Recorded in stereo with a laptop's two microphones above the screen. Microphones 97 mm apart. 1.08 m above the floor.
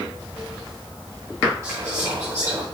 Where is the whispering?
30° right (ahead or behind), 1.7 m.